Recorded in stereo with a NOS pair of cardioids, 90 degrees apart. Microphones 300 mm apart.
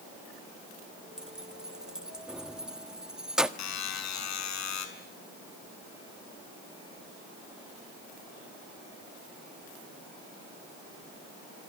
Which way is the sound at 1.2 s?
Straight ahead.